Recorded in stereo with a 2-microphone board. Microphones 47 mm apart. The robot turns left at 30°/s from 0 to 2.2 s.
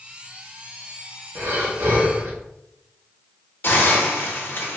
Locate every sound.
1.4 s breathing: 60° right (ahead or behind), 0.9 m
3.6 s a hiss: 55° left (ahead or behind), 0.7 m